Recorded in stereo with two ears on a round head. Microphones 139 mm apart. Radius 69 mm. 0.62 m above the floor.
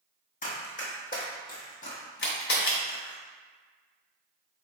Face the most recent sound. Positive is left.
turn(degrees=70)  # may be behind; listen again after turning